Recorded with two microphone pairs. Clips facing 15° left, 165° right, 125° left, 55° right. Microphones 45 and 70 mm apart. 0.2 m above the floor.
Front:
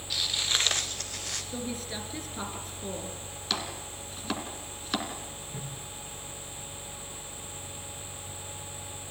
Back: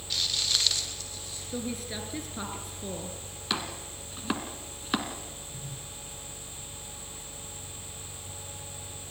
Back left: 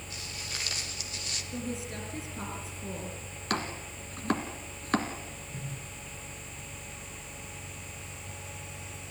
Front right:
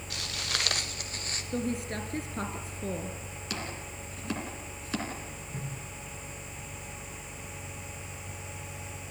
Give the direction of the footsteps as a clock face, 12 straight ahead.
2 o'clock.